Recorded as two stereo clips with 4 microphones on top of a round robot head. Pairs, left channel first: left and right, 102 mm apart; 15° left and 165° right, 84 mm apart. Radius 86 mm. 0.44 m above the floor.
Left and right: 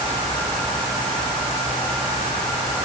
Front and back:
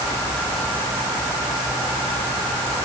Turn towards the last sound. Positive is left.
No sound to turn to.